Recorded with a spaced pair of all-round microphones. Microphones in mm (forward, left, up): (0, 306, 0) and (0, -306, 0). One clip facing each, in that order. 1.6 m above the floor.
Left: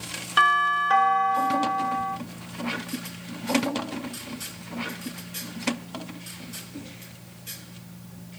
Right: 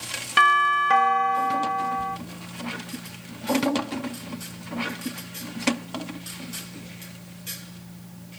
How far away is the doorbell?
About 0.9 m.